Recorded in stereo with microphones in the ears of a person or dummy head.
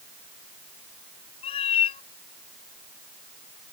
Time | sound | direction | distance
1.4 | a cat meowing | 35° left (ahead or behind) | ?